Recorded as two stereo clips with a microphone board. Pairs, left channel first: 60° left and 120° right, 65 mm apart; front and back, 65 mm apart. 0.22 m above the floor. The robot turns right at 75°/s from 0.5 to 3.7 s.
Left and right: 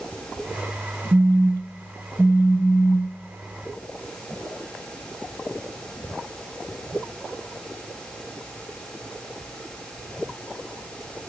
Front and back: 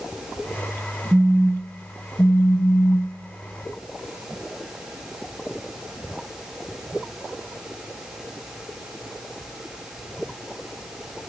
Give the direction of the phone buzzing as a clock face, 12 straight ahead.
4 o'clock.